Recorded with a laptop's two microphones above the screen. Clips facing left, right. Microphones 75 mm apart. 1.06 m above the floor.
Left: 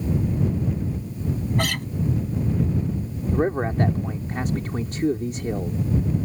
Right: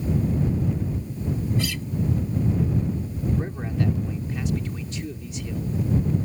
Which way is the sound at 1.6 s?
60° left (ahead or behind).